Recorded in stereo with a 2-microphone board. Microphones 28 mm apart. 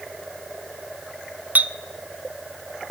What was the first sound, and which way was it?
A clink, 60° right (ahead or behind).